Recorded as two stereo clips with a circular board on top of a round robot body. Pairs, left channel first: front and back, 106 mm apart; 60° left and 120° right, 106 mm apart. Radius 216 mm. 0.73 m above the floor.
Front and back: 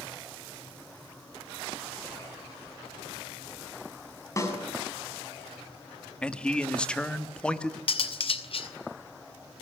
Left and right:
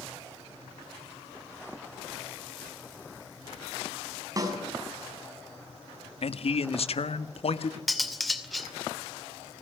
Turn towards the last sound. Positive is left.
turn(degrees=-30)